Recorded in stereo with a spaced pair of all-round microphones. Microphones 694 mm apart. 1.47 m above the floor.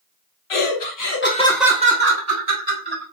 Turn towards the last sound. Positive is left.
turn(degrees=-35)  # may be behind; listen again after turning